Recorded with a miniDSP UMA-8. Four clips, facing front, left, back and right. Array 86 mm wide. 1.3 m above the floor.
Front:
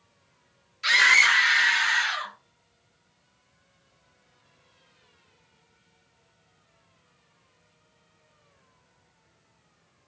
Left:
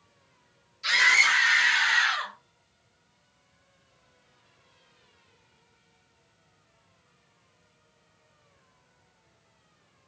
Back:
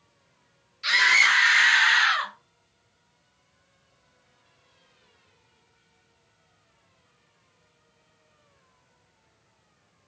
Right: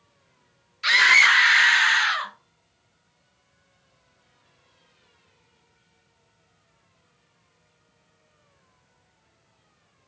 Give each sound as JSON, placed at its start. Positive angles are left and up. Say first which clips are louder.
{"t": 0.8, "sound": "a scream", "louder": "right 5 dB, front 1 dB", "azimuth_deg": -70, "distance_m": 1.4}